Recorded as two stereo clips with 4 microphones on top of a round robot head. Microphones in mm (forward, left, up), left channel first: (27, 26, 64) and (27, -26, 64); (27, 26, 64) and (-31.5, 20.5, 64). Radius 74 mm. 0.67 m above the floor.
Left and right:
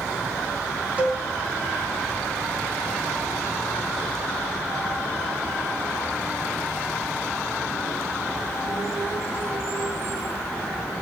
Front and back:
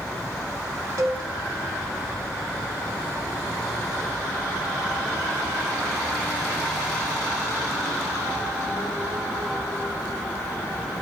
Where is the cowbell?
150° right, 1.5 m.